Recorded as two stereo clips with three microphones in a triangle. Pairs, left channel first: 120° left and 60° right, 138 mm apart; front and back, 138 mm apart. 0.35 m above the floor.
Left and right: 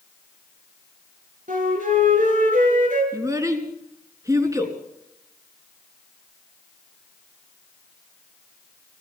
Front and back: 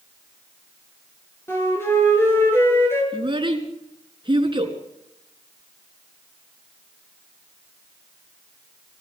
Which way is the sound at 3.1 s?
125° right.